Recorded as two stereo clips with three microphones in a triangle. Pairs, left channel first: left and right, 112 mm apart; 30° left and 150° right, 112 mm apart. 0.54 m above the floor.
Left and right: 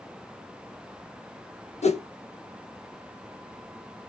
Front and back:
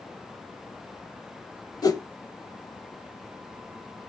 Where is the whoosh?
85° left, 0.7 m.